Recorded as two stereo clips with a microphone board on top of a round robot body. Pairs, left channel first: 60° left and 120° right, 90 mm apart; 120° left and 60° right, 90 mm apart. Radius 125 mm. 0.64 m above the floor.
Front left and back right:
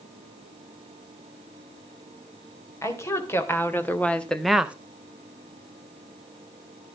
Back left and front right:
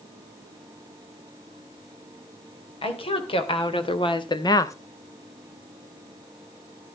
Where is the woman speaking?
115° left, 3.5 m; by 4.8 s 170° left, 1.2 m.